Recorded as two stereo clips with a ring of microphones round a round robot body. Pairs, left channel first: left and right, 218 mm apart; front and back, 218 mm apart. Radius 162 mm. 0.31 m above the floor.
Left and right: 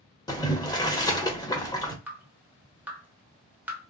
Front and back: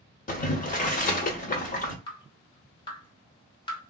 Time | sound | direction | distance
0.3 | boiling | 25° left | 0.9 m
2.1 | dripping | 20° right | 1.1 m